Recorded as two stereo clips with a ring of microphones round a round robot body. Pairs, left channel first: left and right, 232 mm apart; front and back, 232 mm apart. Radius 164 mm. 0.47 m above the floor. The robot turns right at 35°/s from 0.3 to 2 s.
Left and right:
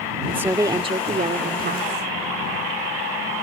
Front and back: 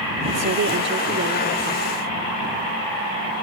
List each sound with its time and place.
0.3 s a woman speaking: 170° right; by 2.1 s 115° right